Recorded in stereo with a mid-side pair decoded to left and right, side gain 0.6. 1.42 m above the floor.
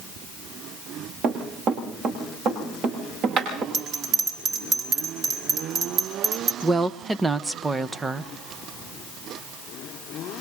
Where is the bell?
45° right, 3.5 m.